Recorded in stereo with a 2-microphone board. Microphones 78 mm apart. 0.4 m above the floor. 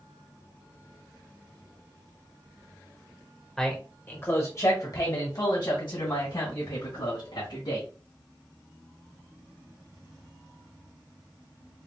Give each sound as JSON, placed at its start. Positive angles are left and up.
{"t": 3.6, "sound": "a man speaking", "side_deg": 10, "distance_m": 1.2}